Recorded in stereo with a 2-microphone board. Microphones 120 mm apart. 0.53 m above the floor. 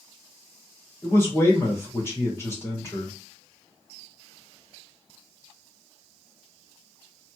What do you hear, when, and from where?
1.0 s a man speaking: 20° left (ahead or behind), 1.9 m